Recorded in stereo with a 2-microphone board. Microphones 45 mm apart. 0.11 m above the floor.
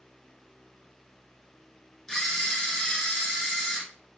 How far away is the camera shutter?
About 0.7 m.